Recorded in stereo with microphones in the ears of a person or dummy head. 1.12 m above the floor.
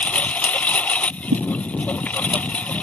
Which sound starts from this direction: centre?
A lawn mower, at 0.0 s.